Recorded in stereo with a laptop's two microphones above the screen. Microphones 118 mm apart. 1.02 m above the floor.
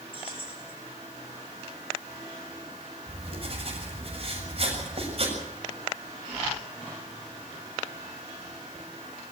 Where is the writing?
55° right (ahead or behind), 7 m.